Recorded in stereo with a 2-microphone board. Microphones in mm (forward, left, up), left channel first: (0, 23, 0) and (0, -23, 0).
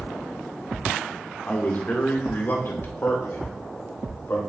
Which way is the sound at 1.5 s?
35° left (ahead or behind).